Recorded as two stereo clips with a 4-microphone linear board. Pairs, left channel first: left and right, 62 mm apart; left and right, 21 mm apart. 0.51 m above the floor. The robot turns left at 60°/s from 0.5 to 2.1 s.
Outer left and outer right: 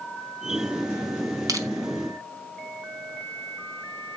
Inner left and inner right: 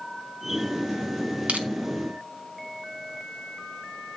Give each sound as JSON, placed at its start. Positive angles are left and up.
{"t": 1.5, "sound": "crushing", "side_deg": -70, "distance_m": 1.8}